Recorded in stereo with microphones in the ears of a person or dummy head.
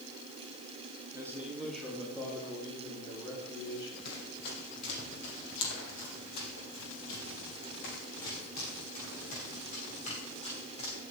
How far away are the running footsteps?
About 4.5 m.